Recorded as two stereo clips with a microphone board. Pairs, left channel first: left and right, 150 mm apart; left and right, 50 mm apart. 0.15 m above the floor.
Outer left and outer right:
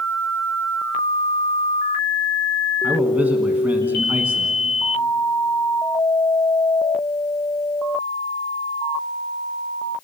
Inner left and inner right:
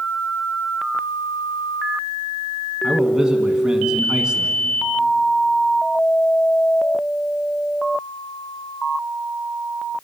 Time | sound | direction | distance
2.8 | a man speaking | 10° right (ahead or behind) | 1.3 m